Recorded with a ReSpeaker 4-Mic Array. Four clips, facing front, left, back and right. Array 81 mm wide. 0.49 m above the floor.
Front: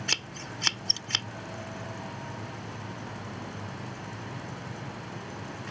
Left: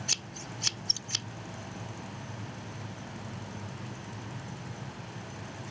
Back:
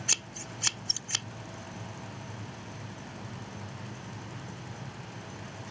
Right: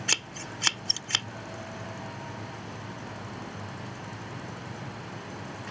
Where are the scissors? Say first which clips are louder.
Right 6 dB, front 4 dB; 65° right.